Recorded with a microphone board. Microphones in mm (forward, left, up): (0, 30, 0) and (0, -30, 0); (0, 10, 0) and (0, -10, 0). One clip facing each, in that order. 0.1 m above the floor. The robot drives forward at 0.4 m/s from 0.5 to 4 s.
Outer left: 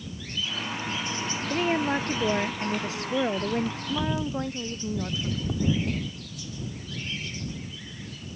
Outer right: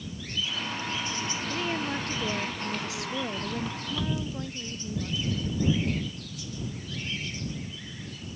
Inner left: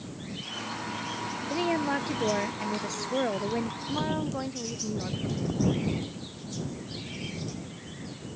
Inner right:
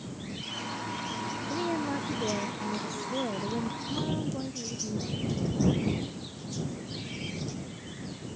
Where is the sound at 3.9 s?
40° left (ahead or behind).